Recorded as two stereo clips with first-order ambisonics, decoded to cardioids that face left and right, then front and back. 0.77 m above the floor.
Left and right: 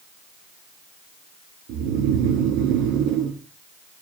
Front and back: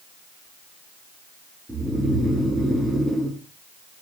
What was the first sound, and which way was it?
Snoring, 100° right.